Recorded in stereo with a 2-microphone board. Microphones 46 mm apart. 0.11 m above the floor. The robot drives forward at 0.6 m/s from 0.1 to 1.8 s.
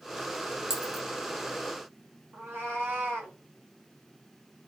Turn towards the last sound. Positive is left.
turn(degrees=-55)  # may be behind; listen again after turning